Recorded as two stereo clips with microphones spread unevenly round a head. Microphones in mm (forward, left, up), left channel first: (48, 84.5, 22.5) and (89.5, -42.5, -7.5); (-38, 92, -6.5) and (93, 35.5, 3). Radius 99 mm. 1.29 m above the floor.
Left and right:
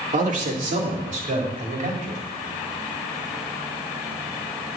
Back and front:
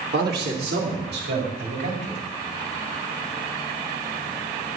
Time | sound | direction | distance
0.1 | a man speaking | 55° right | 2.5 m